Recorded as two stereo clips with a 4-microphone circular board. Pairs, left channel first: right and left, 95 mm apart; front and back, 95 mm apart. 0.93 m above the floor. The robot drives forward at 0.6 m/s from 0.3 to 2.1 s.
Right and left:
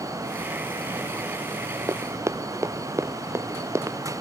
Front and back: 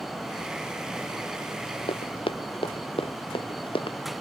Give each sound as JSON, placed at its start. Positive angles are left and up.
{"t": 1.9, "sound": "running footsteps", "azimuth_deg": 25}